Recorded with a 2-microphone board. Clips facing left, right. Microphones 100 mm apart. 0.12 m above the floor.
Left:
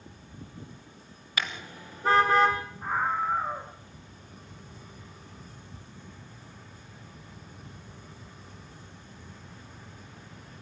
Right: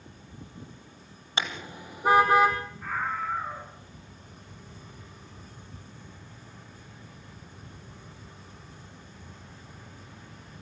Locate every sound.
1.4 s a car horn: 30° right (ahead or behind), 2 m; by 2.6 s 5° right (ahead or behind), 3.5 m
2.8 s a scream: 25° left (ahead or behind), 1.5 m